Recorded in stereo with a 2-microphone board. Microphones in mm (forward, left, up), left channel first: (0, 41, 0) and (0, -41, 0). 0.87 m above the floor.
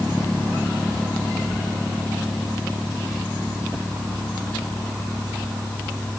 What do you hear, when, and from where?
Only background noise.